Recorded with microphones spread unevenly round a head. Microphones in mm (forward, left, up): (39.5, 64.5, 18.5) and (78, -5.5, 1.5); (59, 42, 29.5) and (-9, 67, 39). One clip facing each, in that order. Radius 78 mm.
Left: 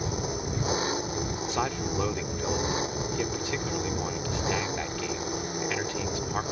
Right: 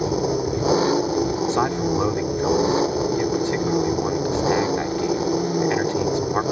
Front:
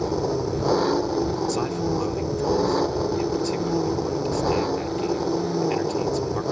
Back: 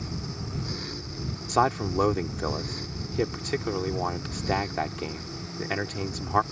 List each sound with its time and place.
0.0 s an engine running: 75° right
1.5 s a man speaking: 140° right